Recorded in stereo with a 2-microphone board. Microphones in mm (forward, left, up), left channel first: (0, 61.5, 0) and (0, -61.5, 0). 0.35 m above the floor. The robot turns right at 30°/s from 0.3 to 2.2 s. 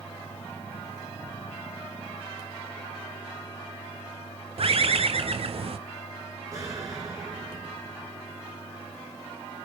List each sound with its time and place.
4.6 s a bird: 55° right (ahead or behind), 0.9 m
6.5 s an explosion: 30° right (ahead or behind), 3 m